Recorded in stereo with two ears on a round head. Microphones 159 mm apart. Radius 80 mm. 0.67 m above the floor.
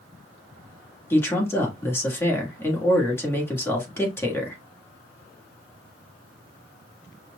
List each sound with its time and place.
1.1 s a man speaking: 15° left (ahead or behind), 1.8 m